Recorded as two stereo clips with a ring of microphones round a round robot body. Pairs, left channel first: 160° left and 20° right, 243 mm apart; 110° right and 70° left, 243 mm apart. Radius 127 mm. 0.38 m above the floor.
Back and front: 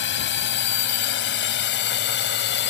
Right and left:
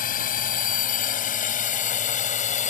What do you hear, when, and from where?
0.0 s a drone: 165° right; by 2.7 s 170° right